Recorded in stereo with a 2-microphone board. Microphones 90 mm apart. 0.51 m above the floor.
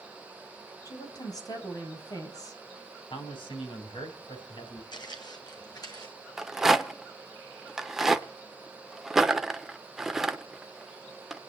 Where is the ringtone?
I don't hear a ringtone.